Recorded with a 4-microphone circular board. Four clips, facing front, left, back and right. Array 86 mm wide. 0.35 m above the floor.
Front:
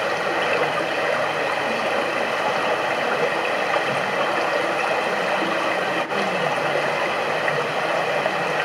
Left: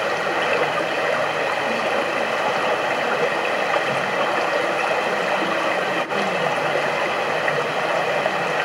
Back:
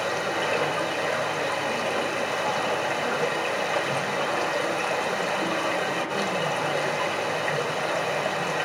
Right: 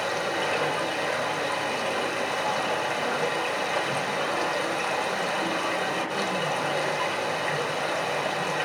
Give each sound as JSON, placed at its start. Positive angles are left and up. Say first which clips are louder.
{"t": 0.0, "sound": "running water", "louder": "left 6 dB, front 4 dB", "azimuth_deg": 50, "distance_m": 1.0}